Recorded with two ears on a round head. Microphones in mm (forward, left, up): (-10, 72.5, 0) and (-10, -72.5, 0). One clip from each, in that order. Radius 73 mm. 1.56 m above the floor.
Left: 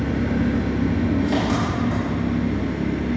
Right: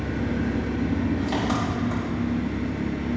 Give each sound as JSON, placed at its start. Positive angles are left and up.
{"t": 0.0, "sound": "an engine running", "side_deg": -25, "distance_m": 2.5}